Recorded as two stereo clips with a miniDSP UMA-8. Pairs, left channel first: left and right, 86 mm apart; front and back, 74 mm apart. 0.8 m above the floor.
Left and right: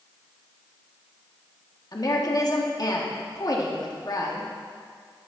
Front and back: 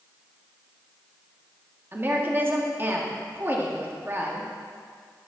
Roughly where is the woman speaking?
Behind left.